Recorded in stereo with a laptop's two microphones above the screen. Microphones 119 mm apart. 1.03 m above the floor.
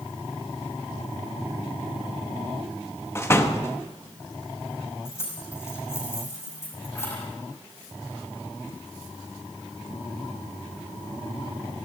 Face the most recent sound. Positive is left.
turn(degrees=20)  # may be behind; listen again after turning